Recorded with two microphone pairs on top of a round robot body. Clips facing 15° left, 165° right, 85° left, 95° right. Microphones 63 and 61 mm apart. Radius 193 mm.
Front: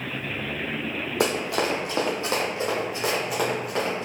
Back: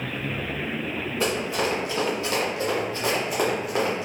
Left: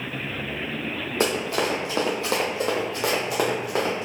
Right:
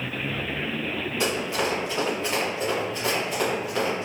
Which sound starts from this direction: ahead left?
Running footsteps, at 1.2 s.